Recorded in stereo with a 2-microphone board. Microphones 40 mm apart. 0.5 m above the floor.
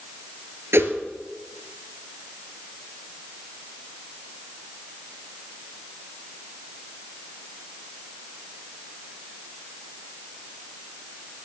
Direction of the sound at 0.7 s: 70° right (ahead or behind).